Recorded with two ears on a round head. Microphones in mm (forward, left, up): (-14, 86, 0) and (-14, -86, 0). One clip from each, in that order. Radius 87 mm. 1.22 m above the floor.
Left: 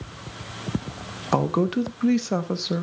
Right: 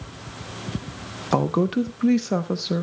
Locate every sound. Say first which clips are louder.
1.3 s a woman speaking: right 1 dB; 10° left (ahead or behind), 0.8 m